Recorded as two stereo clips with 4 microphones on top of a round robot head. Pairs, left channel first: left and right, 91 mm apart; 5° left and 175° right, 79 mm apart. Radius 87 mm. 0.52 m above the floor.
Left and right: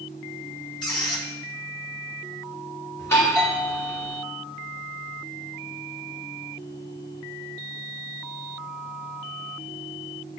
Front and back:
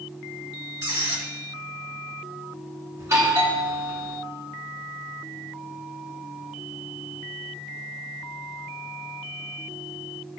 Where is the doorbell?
145° left, 2.5 m.